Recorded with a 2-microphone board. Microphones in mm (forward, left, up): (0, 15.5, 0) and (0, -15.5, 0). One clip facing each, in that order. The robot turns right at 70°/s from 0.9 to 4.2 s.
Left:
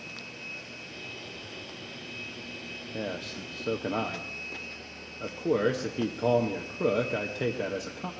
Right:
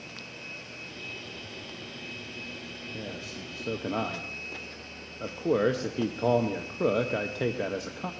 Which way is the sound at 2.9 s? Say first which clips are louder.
Left 6 dB; 60° left (ahead or behind).